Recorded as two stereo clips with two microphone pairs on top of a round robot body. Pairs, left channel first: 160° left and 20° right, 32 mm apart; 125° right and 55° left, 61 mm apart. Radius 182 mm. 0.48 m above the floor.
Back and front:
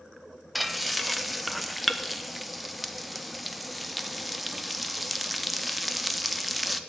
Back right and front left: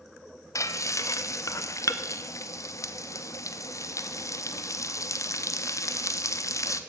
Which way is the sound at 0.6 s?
115° right.